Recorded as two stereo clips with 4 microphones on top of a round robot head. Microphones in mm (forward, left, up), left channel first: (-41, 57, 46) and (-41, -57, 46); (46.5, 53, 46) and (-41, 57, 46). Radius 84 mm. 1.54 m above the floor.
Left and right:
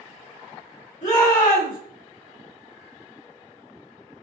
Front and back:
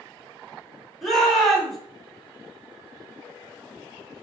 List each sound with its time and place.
1.0 s a shout: 85° left, 2.0 m